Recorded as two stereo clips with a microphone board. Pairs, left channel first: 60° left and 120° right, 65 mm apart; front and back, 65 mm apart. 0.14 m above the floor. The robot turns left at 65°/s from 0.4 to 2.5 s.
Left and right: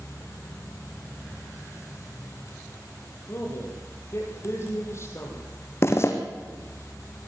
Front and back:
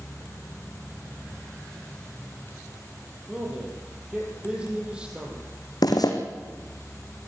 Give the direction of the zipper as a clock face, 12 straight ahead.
12 o'clock.